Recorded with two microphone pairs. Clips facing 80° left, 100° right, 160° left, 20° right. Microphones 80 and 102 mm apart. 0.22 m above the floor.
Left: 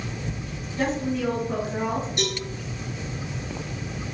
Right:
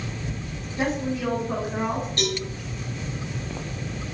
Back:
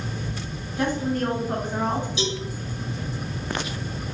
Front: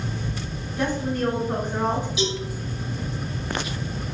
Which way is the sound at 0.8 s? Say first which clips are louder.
Left 1 dB, even; 175° right.